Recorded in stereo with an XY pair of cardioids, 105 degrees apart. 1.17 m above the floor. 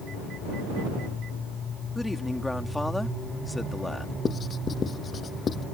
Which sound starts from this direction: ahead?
A man speaking, at 1.9 s.